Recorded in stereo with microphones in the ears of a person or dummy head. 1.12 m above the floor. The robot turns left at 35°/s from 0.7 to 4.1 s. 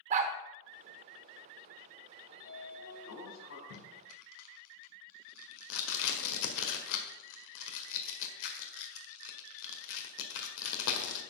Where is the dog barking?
35° right (ahead or behind), 1.0 m.